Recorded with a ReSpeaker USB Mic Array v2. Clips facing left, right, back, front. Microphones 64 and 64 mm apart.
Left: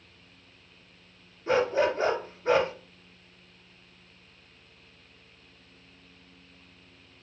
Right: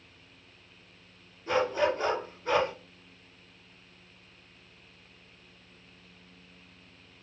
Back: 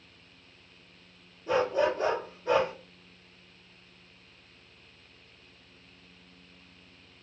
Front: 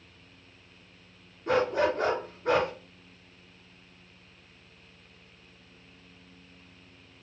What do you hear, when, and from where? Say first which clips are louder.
1.5 s a dog barking: left 2 dB, front 1 dB; 35° left, 1.9 m